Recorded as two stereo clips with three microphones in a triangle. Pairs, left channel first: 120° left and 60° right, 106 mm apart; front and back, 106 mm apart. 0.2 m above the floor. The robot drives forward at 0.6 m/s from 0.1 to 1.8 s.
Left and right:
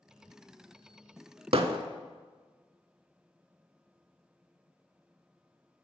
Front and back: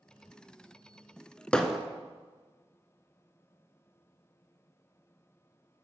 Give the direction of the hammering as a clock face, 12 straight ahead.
3 o'clock.